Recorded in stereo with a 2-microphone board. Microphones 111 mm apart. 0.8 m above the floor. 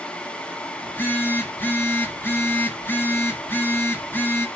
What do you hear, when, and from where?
0.8 s a phone buzzing: 20° left (ahead or behind), 2.0 m